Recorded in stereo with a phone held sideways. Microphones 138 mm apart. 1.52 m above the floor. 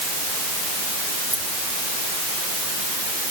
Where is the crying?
I don't hear crying.